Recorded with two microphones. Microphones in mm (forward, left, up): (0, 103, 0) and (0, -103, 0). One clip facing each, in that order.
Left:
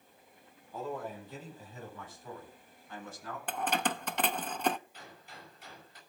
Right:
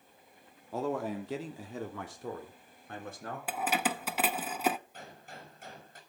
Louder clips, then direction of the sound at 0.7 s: Right 6 dB; 70° right (ahead or behind).